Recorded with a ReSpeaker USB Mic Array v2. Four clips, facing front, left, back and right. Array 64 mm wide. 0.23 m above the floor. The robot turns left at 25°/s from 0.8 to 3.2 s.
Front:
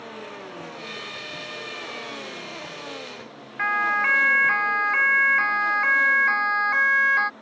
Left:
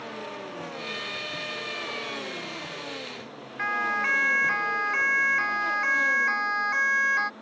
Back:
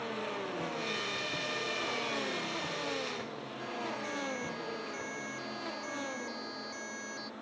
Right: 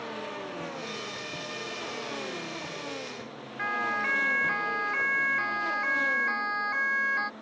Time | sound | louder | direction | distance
3.6 | a siren | left 3 dB, front 18 dB | 10° left | ?